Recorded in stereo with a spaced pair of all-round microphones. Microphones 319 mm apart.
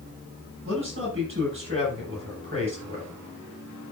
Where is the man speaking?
40° right (ahead or behind), 8 m.